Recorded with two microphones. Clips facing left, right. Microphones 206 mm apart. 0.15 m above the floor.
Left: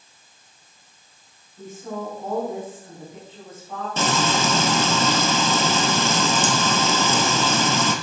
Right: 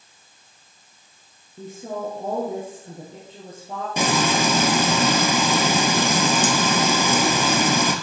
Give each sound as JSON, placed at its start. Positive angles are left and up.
{"t": 1.6, "sound": "a woman speaking", "side_deg": -45, "distance_m": 4.0}
{"t": 4.0, "sound": "frying", "side_deg": -10, "distance_m": 1.2}